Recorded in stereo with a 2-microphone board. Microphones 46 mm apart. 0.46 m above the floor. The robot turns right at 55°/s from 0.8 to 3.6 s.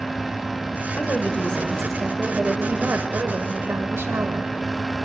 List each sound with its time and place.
1.0 s a woman speaking: 125° left, 1.5 m; by 4.5 s 90° right, 1.5 m